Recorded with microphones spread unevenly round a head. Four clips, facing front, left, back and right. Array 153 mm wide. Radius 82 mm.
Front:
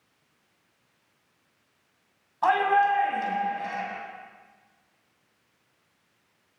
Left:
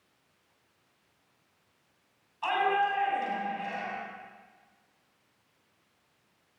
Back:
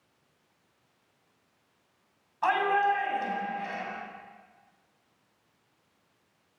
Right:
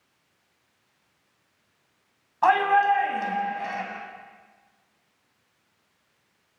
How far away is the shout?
About 8.5 m.